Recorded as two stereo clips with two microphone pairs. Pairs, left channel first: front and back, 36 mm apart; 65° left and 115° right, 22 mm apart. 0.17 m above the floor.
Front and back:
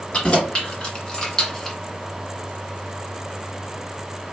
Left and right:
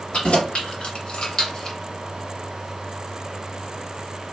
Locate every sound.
0.1 s keys jangling: 60° left, 1.7 m; by 1.8 s 75° left, 0.8 m